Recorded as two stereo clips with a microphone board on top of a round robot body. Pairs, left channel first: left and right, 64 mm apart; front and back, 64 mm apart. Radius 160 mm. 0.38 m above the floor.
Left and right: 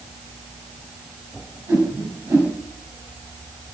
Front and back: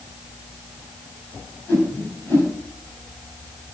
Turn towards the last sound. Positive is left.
turn(degrees=-50)